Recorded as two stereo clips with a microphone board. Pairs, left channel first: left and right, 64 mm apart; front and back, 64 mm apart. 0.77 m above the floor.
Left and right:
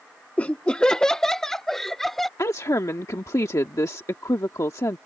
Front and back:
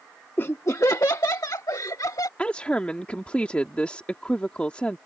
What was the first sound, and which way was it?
Laughter, 35° left.